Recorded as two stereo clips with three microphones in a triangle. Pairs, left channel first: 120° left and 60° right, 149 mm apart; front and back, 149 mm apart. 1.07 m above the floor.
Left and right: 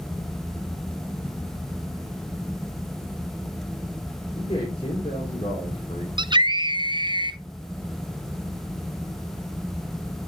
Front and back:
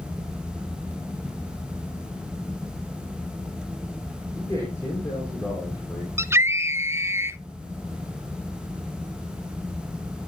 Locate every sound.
4.3 s a man speaking: 70° left, 3 m
6.2 s a scream: 110° right, 0.6 m